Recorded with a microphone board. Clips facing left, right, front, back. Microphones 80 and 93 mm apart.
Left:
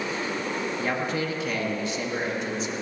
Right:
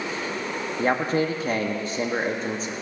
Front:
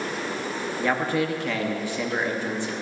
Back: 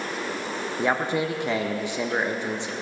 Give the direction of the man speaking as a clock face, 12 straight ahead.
4 o'clock.